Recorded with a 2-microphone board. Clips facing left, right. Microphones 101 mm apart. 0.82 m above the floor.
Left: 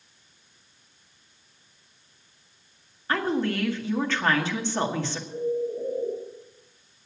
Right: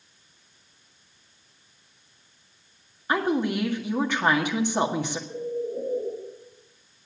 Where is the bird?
45° right (ahead or behind), 7.5 m.